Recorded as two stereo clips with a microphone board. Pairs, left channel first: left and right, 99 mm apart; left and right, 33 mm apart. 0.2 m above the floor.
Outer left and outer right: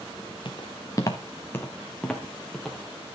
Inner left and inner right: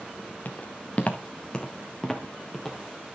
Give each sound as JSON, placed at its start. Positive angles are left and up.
{"t": 0.5, "sound": "footsteps", "side_deg": 55, "distance_m": 1.5}